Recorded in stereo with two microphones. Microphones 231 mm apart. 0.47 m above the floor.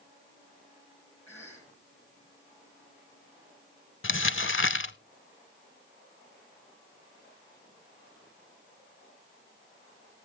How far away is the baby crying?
I don't hear a baby crying.